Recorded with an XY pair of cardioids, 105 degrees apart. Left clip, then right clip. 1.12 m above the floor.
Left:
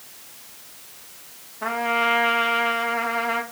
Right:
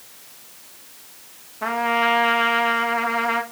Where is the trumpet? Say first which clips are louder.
Right 2 dB; 20° right, 1.6 m.